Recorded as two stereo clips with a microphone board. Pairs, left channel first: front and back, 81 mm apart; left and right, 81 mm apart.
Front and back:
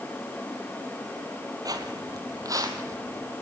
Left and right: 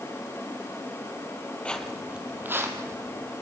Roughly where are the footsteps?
Behind.